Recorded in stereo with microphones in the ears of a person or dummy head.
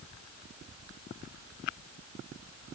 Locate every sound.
Only background noise.